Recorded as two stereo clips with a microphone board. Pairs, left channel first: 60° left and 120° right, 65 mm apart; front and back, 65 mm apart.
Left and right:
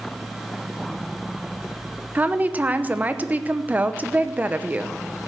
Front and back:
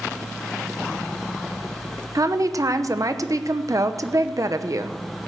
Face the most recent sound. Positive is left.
turn(degrees=180)